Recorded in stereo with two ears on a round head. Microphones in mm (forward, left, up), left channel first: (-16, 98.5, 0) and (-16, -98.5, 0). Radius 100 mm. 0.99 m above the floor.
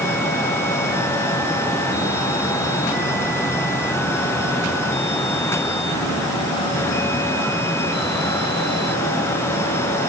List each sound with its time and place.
Only background noise.